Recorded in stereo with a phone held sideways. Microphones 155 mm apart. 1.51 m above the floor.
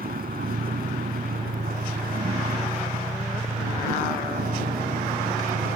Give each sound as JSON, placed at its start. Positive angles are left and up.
{"t": 0.0, "sound": "a vehicle", "side_deg": -75}